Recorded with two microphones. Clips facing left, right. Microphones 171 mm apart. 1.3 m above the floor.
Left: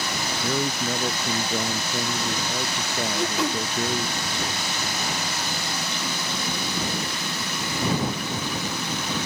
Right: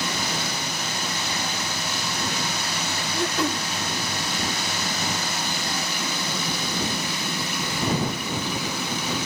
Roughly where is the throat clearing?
Centre.